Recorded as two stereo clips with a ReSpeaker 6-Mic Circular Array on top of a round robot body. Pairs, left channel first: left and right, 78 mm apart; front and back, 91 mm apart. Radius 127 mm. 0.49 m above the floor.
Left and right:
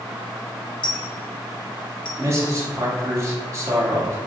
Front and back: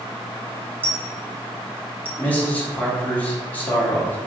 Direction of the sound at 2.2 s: 65° right.